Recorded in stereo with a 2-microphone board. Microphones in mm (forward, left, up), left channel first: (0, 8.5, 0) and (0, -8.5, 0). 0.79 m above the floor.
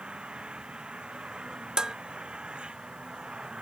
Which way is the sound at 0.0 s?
60° right (ahead or behind).